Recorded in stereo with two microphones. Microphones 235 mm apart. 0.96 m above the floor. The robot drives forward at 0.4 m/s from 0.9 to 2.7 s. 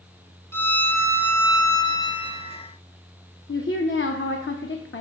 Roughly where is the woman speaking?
Left.